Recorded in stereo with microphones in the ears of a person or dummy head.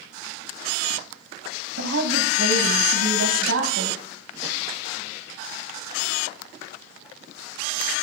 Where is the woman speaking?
75° right (ahead or behind), 1.1 m.